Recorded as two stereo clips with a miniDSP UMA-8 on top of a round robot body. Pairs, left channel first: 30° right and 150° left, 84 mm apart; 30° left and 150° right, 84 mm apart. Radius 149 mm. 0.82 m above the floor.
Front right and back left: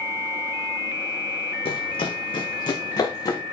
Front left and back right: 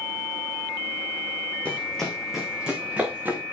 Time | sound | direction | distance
1.6 | running footsteps | 45° right | 2.5 m